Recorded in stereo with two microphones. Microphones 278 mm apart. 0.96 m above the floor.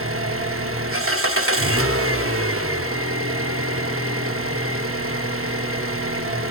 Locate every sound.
0.0 s an engine running: 55° right (ahead or behind), 0.8 m